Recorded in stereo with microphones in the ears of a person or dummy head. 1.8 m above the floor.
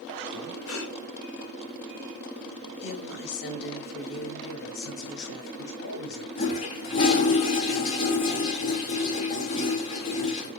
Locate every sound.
0.3 s breathing: 80° left, 4 m
2.7 s a woman speaking: 75° left (ahead or behind), 3.5 m
4.4 s a man speaking: 70° left (ahead or behind), 5 m
6.4 s a toilet flushing: 35° left (ahead or behind), 2.5 m